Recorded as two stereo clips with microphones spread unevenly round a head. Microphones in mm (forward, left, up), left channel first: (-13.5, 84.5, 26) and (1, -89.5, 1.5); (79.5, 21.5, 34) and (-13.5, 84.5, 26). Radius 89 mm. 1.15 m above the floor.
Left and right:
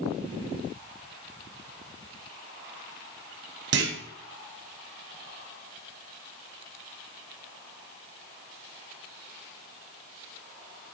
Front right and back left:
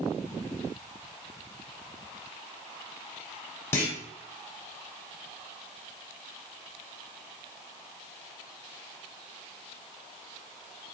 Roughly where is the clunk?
Right.